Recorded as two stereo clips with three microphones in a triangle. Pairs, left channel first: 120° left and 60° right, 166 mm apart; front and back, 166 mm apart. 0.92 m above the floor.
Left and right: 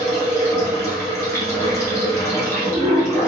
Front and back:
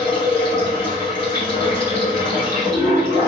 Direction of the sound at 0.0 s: 170° right.